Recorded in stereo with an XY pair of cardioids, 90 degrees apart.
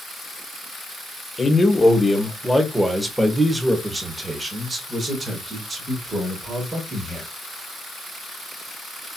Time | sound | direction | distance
1.4 | a man speaking | 25° left | 1.6 m